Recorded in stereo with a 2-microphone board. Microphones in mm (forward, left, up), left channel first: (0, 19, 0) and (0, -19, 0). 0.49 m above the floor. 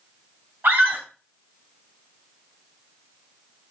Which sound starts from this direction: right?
A scream, at 0.6 s.